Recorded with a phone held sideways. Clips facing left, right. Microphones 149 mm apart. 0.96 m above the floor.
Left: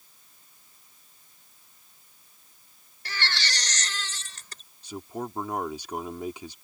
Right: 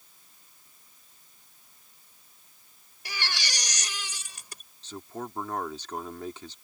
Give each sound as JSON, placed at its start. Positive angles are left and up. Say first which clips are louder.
{"t": 3.0, "sound": "a baby crying", "louder": "left 3 dB", "side_deg": -10}
{"t": 4.8, "sound": "a man speaking", "louder": "left 3 dB", "side_deg": 10}